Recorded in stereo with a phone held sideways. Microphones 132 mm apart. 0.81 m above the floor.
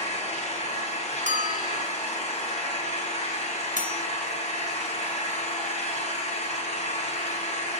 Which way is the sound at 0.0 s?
55° left (ahead or behind).